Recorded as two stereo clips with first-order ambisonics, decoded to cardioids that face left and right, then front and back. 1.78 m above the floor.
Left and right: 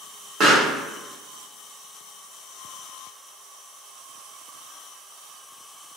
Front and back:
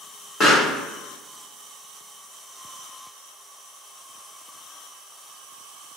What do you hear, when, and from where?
0.4 s a pop: 50° right, 1.1 m